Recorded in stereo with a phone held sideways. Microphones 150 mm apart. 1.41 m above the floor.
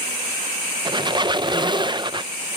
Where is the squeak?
30° right (ahead or behind).